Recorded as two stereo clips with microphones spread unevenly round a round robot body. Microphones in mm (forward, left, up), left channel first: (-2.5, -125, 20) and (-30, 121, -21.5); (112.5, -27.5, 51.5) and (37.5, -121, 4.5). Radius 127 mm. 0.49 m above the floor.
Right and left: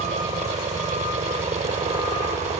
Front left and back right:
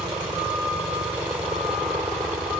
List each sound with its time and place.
0.0 s a helicopter: 160° left